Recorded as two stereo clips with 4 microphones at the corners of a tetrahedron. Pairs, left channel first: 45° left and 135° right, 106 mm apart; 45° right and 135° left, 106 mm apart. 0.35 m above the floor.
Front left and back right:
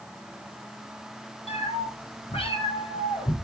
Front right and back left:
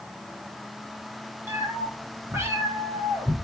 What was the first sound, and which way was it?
A cat meowing, 65° left.